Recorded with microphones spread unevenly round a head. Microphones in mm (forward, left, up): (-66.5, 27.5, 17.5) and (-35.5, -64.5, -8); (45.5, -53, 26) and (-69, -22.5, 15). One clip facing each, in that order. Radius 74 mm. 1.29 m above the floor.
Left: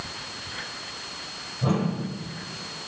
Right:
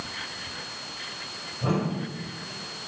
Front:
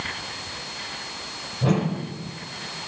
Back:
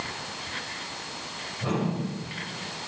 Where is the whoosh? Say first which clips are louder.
Left 1 dB, front 5 dB; 35° left, 2.5 m.